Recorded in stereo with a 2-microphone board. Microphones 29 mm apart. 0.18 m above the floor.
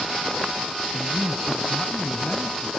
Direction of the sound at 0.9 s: Centre (ahead or behind).